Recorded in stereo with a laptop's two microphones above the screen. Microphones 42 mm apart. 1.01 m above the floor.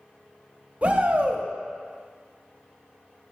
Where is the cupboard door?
I don't hear a cupboard door.